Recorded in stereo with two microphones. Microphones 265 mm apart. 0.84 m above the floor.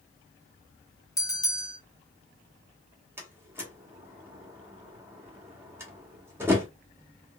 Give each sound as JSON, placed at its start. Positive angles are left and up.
{"t": 1.2, "sound": "a bell", "side_deg": 15, "distance_m": 0.9}
{"t": 3.2, "sound": "a door slam", "side_deg": -10, "distance_m": 1.1}